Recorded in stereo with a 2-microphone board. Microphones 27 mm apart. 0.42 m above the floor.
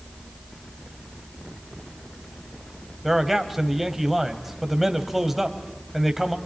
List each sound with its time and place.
3.0 s a man speaking: 10° right (ahead or behind), 1.9 m